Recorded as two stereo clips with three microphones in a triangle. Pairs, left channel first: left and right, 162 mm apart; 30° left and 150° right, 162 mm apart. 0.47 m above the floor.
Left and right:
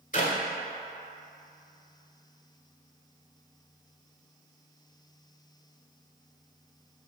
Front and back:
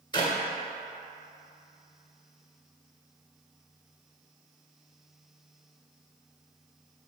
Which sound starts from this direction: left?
A clap, at 0.1 s.